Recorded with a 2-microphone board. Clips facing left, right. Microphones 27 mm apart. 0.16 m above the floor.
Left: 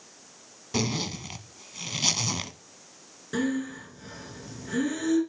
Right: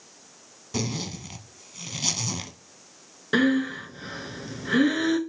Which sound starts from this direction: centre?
A zipper, at 0.7 s.